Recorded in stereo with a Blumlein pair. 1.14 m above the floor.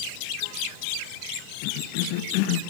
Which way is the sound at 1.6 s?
45° left.